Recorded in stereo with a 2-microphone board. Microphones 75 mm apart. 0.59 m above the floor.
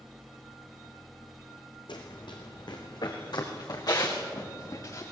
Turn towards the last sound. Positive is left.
turn(degrees=50)  # may be behind; listen again after turning